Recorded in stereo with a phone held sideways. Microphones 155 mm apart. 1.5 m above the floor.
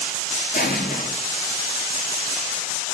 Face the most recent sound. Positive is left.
turn(degrees=75)  # may be behind; listen again after turning